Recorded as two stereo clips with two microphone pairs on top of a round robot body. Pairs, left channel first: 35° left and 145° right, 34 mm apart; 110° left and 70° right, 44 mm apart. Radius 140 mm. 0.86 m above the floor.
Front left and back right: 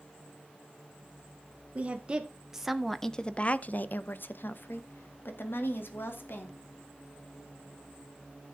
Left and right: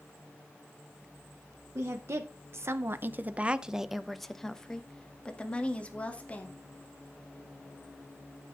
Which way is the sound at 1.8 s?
90° right.